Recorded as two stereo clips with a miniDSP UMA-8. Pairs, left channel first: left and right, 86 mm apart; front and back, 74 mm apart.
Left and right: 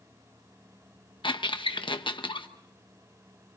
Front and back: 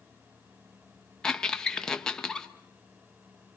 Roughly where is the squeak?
Left.